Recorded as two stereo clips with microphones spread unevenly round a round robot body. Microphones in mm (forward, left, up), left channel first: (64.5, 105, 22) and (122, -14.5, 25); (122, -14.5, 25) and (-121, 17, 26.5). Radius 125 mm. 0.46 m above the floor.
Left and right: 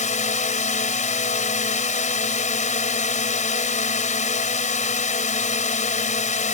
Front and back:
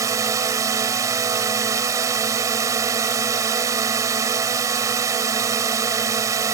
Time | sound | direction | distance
0.0 | a drone | 95° left | ?